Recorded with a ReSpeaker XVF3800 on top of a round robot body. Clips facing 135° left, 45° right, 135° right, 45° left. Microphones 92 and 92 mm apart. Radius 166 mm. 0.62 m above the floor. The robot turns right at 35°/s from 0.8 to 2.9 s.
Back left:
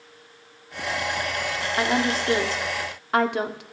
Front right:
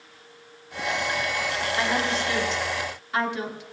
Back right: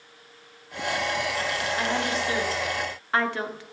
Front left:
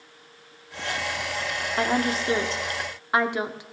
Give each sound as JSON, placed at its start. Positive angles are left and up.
{"t": 1.8, "sound": "a woman speaking", "azimuth_deg": 80, "distance_m": 1.9}